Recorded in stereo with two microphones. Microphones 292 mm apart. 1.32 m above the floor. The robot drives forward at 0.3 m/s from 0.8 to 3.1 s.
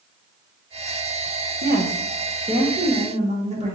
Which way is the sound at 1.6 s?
35° right (ahead or behind).